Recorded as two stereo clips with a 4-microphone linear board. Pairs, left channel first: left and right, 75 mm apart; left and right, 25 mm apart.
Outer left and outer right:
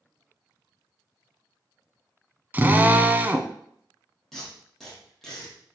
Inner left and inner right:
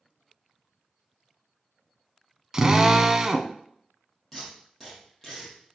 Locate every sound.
2.5 s a drill: 25° right (ahead or behind), 0.8 m
4.3 s tape being pulled: centre (ahead or behind), 5 m